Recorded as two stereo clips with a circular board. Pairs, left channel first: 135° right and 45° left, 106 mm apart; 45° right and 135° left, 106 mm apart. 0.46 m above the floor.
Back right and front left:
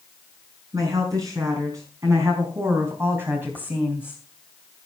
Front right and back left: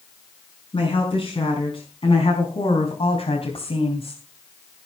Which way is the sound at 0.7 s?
10° right.